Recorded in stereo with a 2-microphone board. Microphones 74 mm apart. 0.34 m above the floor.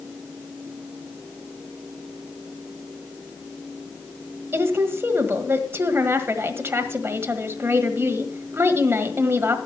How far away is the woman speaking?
About 1.5 m.